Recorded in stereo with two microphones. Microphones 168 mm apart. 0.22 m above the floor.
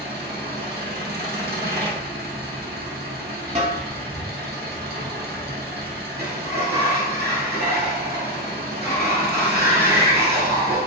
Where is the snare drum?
40° right (ahead or behind), 0.7 m.